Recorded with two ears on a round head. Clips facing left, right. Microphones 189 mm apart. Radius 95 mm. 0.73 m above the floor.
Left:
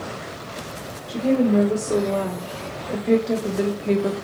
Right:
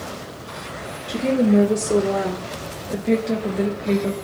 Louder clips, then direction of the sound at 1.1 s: Right 1 dB; 25° right (ahead or behind).